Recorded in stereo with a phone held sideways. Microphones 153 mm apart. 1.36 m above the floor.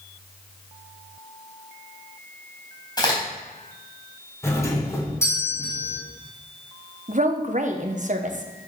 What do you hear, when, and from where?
3.0 s a crack: 25° left (ahead or behind), 3.5 m
4.4 s a doorbell: 15° left (ahead or behind), 1.7 m
7.1 s a woman speaking: 50° right (ahead or behind), 1.0 m